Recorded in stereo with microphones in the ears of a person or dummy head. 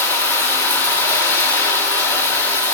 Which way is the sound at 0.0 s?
10° left (ahead or behind).